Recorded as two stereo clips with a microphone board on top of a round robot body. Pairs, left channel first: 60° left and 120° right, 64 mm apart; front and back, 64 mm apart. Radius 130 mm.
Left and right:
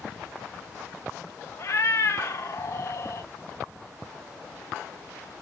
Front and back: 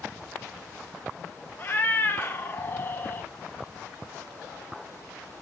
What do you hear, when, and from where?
1.6 s a cat meowing: 45° left, 0.6 m